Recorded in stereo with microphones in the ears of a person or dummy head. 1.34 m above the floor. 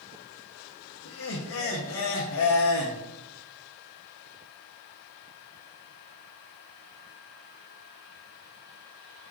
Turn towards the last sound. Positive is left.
turn(degrees=75)  # may be behind; listen again after turning